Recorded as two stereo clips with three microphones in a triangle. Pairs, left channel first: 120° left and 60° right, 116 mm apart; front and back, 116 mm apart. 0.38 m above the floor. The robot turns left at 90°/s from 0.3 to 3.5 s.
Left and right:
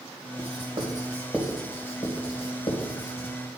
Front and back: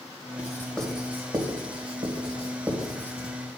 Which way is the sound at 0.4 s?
45° right.